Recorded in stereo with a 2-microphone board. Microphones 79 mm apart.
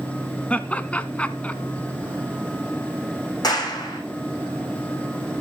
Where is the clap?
55° left (ahead or behind), 6.5 m.